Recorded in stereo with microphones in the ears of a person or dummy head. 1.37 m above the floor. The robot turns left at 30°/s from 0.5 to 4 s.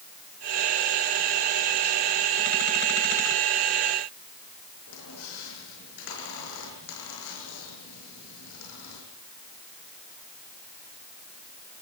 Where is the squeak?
65° left (ahead or behind), 7.5 m.